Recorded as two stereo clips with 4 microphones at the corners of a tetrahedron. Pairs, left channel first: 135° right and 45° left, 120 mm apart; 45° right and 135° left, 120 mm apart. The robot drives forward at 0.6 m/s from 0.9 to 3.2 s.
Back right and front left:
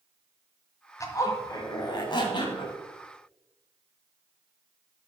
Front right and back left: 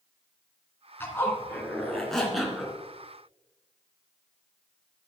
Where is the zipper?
100° right, 1.9 m; by 2.8 s 140° right, 2 m.